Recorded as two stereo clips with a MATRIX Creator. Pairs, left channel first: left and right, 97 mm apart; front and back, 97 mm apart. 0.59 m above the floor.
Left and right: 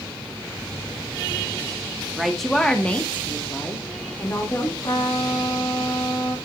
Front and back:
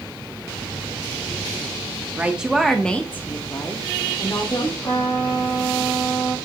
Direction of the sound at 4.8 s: 45° left.